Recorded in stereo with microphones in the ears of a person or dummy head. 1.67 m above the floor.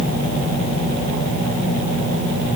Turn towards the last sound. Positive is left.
No sound to turn to.